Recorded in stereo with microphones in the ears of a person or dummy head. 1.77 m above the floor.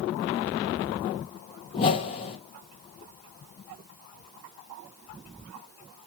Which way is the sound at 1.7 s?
30° left (ahead or behind).